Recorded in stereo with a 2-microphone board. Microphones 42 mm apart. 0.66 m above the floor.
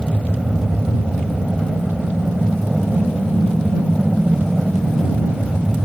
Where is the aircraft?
5° right (ahead or behind); by 5.9 s 15° right (ahead or behind).